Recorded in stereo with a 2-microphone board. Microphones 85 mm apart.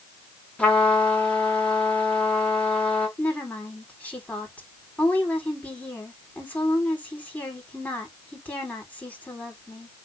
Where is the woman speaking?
15° left (ahead or behind), 4.5 m.